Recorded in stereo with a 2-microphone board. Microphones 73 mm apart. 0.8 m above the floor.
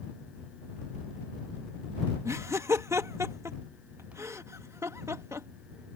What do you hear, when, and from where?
2.2 s laughter: 40° right (ahead or behind)